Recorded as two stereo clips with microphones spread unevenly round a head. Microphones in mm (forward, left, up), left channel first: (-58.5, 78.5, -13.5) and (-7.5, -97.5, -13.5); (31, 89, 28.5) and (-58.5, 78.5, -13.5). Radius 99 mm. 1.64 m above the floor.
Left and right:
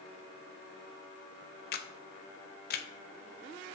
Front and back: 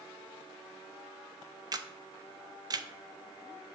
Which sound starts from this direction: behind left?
A camera shutter, at 1.7 s.